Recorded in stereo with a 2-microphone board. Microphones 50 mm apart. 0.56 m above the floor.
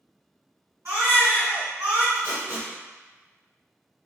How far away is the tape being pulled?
About 2.0 m.